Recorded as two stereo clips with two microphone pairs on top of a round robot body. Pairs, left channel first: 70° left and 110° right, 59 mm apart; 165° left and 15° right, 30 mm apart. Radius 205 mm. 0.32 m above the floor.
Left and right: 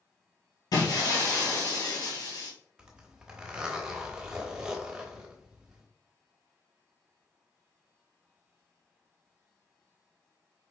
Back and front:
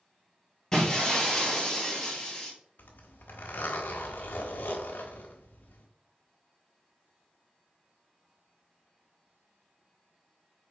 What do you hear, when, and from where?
0.7 s breaking glass: 90° left, 1.7 m
2.8 s a zipper: 175° left, 0.9 m